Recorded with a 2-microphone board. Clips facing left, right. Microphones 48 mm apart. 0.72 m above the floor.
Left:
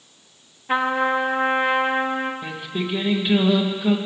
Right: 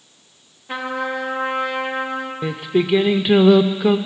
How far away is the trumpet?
About 1.2 m.